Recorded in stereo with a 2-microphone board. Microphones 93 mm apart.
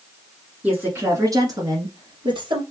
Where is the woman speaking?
15° right (ahead or behind), 1.6 m; by 2.6 s 60° right (ahead or behind), 2.5 m.